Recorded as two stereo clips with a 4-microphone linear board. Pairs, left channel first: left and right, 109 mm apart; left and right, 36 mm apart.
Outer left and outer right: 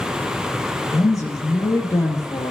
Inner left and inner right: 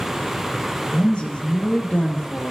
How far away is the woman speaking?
About 2.5 m.